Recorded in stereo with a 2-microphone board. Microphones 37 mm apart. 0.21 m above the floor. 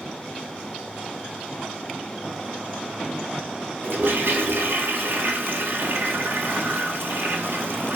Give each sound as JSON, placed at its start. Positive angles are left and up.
{"t": 3.8, "sound": "a toilet flushing", "side_deg": -75, "distance_m": 0.7}